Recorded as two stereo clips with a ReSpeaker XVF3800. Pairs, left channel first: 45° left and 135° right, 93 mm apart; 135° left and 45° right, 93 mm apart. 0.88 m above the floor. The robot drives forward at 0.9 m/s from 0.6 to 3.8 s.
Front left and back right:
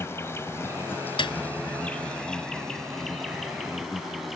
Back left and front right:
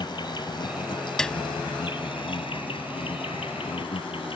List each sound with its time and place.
0.0 s an insect: 105° left; by 4.4 s 135° left
1.2 s a piano: 50° left; by 1.4 s 55° left